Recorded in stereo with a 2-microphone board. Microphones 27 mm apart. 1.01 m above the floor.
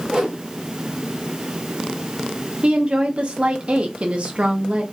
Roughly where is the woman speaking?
Right.